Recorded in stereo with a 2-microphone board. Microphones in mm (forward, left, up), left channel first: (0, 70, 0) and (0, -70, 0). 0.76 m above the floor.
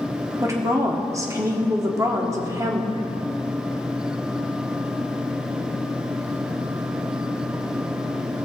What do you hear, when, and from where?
0.4 s a woman speaking: 25° right (ahead or behind), 1.5 m